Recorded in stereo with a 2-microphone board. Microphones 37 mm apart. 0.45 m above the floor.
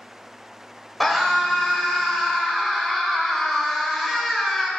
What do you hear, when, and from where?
1.0 s a scream: centre (ahead or behind), 2.5 m